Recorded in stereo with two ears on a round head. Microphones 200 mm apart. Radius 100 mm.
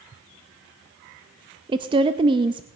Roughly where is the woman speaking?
Right.